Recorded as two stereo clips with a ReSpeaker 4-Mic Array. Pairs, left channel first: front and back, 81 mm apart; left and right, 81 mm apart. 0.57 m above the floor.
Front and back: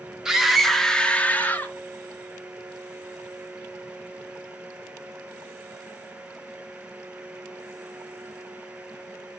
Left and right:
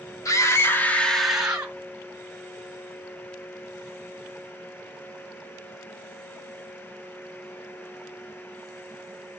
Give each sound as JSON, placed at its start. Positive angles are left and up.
{"t": 0.2, "sound": "a scream", "azimuth_deg": 100, "distance_m": 1.4}